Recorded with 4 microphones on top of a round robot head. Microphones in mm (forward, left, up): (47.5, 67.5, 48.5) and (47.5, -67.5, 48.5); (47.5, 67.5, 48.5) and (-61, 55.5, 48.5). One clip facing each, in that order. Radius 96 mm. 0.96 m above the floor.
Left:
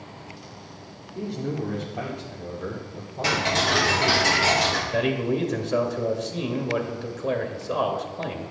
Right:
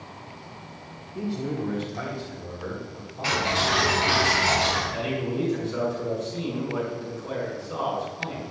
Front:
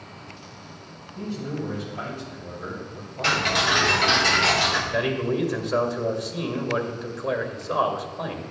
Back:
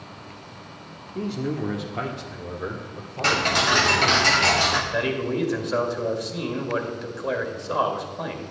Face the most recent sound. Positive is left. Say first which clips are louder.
# left 4 dB, front 1 dB
turn(degrees=95)